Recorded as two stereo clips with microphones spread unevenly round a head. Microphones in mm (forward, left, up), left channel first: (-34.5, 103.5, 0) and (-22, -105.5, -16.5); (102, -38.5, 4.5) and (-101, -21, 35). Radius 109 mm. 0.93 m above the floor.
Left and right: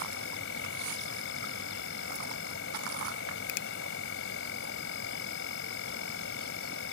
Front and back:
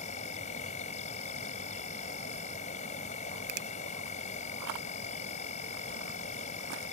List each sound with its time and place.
0.0 s an insect: 55° left
3.5 s a finger snap: 130° left